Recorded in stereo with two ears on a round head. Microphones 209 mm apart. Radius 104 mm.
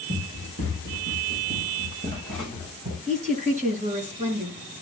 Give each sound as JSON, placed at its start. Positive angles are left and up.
{"t": 0.1, "sound": "running footsteps", "side_deg": -55, "distance_m": 6.0}
{"t": 3.1, "sound": "a woman speaking", "side_deg": -30, "distance_m": 4.5}